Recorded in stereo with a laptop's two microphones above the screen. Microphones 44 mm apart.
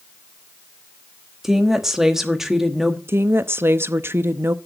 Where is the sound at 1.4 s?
10° right (ahead or behind), 1.2 m.